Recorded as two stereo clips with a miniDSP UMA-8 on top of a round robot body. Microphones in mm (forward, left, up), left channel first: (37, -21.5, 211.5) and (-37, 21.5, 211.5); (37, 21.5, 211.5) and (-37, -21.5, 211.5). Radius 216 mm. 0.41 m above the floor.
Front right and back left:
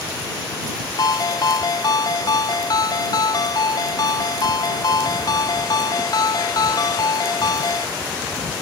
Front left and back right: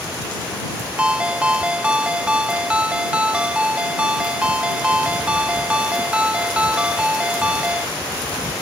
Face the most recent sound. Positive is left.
turn(degrees=-70)